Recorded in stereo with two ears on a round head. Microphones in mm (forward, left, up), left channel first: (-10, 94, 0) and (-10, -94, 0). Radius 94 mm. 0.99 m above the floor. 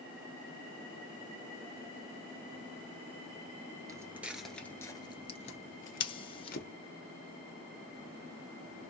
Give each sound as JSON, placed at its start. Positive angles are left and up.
{"t": 3.9, "sound": "footsteps", "side_deg": -15, "distance_m": 1.0}
{"t": 6.0, "sound": "scissors", "side_deg": 25, "distance_m": 0.7}